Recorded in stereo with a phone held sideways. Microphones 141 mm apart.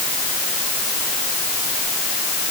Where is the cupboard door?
No cupboard door in this recording.